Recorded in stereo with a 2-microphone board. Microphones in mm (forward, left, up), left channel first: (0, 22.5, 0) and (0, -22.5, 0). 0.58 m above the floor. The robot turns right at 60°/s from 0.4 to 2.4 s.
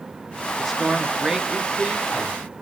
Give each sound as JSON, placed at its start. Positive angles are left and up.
{"t": 0.6, "sound": "a man speaking", "side_deg": 5, "distance_m": 0.6}